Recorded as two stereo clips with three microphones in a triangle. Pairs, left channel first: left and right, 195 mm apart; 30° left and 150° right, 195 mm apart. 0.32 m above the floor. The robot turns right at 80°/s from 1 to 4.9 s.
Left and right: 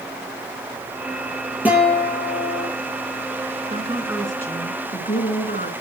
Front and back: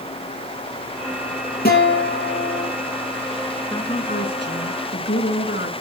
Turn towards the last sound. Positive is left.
turn(degrees=55)